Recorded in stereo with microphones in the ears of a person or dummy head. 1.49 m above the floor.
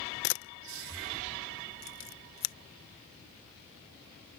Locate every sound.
0.2 s a camera shutter: 60° left (ahead or behind)